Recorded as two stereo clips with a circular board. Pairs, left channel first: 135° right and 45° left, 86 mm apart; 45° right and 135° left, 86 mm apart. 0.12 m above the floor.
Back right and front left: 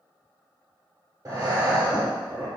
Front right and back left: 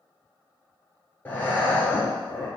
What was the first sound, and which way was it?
Breathing, 15° left.